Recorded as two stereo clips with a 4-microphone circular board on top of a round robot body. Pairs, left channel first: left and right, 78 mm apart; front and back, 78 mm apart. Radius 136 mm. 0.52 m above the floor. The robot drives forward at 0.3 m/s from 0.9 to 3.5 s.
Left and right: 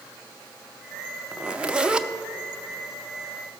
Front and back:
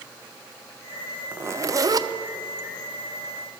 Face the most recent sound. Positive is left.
turn(degrees=-175)